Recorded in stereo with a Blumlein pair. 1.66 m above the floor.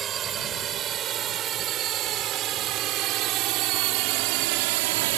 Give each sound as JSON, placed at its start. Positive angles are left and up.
{"t": 0.0, "sound": "a drone", "azimuth_deg": -25}